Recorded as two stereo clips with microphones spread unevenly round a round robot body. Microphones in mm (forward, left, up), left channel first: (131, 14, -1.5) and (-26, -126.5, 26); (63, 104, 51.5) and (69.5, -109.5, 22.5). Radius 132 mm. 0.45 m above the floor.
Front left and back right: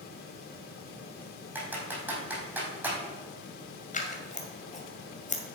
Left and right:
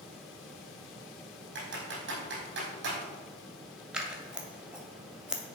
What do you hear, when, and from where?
1.6 s typing on a keyboard: 60° right, 4.5 m
3.9 s scissors: 5° right, 2 m